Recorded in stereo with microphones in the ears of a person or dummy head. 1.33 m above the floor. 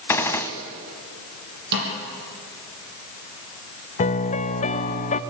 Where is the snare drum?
55° right (ahead or behind), 6.5 m.